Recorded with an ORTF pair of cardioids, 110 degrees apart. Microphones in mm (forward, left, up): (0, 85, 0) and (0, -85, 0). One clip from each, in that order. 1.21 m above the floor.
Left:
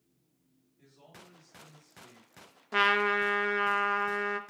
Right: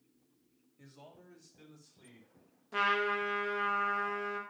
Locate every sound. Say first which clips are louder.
0.8 s a man speaking: left 1 dB; 60° right, 3 m
2.7 s a trumpet: left 5 dB; 40° left, 0.8 m